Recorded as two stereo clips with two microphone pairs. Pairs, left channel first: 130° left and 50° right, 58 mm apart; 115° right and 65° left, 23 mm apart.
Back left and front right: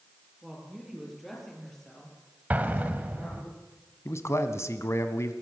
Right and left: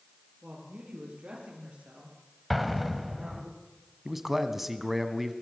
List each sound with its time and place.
0.4 s a woman speaking: 35° left, 7.5 m; by 3.5 s 65° left, 6 m
2.5 s an explosion: 25° right, 1.5 m
4.0 s a man speaking: 145° left, 1.6 m